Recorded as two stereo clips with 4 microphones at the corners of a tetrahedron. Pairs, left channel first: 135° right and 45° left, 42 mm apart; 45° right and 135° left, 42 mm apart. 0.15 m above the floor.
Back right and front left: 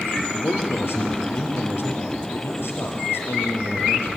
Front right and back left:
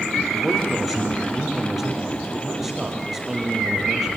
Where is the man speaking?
140° right, 4 m.